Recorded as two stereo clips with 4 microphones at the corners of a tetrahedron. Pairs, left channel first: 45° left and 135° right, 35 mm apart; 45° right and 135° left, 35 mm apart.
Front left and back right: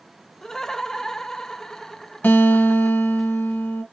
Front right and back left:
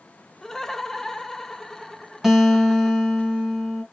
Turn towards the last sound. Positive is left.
turn(degrees=55)